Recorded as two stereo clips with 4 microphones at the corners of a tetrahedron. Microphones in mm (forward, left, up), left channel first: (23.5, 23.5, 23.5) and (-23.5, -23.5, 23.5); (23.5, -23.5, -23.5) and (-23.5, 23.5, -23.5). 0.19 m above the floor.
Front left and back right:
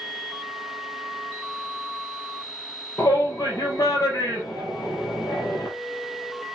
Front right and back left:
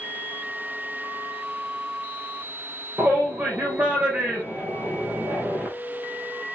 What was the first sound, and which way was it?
A shout, 75° left.